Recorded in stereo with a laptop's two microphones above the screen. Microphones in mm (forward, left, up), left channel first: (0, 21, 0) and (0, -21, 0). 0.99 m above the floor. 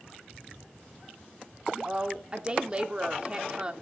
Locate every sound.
1.8 s a woman speaking: 25° right (ahead or behind), 2 m